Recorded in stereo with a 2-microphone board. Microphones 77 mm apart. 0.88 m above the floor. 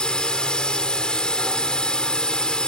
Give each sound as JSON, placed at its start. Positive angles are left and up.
{"t": 0.0, "sound": "a drone", "side_deg": 10}